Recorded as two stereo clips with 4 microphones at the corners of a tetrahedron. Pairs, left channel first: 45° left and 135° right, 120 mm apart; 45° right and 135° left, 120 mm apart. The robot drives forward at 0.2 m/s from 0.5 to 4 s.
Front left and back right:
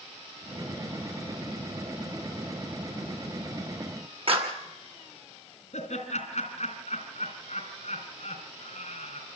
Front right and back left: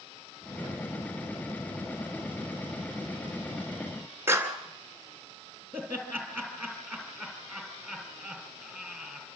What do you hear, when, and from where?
4.3 s a clap: 160° right, 2.5 m
5.7 s laughter: 65° left, 3 m